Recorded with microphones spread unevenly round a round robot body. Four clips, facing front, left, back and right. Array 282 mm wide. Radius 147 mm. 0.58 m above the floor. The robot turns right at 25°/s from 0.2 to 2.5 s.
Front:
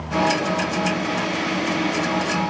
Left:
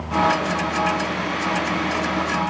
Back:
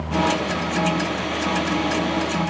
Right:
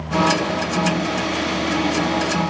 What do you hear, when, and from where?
Only background noise.